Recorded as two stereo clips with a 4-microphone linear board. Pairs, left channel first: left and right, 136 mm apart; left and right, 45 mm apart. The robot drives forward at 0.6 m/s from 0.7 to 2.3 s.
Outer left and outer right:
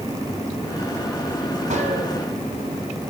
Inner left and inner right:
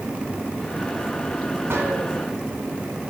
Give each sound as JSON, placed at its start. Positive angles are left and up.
{"t": 1.7, "sound": "a gunshot", "side_deg": -60, "distance_m": 3.5}